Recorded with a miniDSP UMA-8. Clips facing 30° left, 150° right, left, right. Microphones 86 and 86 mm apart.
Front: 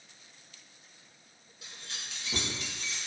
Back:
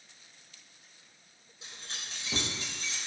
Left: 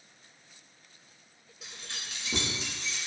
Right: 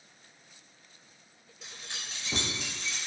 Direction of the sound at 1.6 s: 175° left.